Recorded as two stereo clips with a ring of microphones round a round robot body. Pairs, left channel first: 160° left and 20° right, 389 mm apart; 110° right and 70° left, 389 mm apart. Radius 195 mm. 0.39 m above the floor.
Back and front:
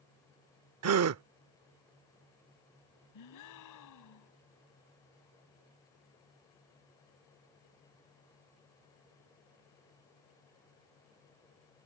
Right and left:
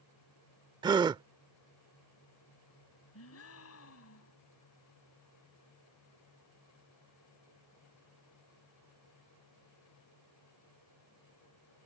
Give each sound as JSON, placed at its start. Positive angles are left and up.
{"t": 0.8, "sound": "a gasp", "azimuth_deg": -5}
{"t": 3.1, "sound": "a gasp", "azimuth_deg": -165}